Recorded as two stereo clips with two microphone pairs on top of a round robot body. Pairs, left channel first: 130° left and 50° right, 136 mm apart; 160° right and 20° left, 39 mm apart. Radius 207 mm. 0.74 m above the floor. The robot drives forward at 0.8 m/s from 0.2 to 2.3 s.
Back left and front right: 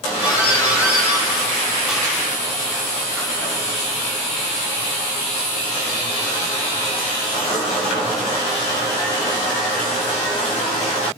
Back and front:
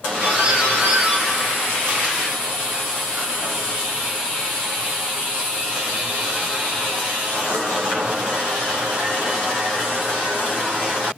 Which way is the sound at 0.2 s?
20° left.